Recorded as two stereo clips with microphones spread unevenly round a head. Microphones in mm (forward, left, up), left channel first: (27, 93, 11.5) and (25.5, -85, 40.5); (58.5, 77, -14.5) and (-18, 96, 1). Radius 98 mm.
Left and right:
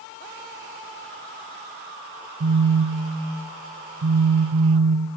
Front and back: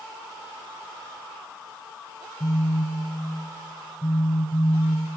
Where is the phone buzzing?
75° right, 0.8 m.